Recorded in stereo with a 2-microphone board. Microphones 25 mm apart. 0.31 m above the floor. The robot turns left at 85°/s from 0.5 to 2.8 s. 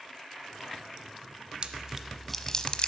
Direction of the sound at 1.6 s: 45° right (ahead or behind).